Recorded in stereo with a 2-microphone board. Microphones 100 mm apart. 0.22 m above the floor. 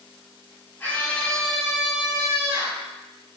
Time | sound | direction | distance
0.8 | a scream | 25° left (ahead or behind) | 1.1 m